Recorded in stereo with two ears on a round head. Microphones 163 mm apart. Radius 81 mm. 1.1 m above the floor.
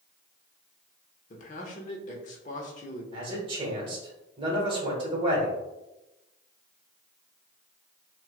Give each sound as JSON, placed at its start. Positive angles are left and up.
{"t": 1.3, "sound": "a man speaking", "side_deg": 40, "distance_m": 1.0}
{"t": 3.1, "sound": "a man speaking", "side_deg": -30, "distance_m": 1.4}